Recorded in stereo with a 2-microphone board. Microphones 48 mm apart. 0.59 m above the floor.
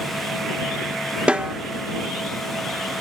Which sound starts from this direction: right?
A snare drum, at 1.3 s.